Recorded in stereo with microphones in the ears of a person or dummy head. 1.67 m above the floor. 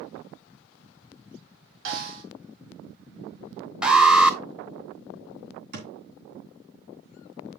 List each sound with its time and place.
1.9 s a snare drum: 75° right (ahead or behind), 3.5 m
3.8 s an alarm: 5° right (ahead or behind), 1.0 m
5.7 s a thud: 55° right (ahead or behind), 3 m